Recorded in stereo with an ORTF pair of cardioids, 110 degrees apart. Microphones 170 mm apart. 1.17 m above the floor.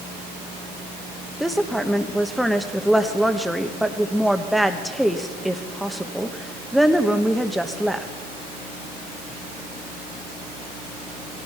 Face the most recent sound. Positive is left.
turn(degrees=0)